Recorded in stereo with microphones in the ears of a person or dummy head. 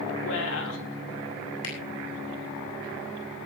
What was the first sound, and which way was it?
A woman speaking, 75° left (ahead or behind).